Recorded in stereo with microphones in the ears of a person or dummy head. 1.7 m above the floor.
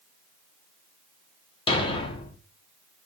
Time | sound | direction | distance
1.7 | a thud | 25° left (ahead or behind) | 1.5 m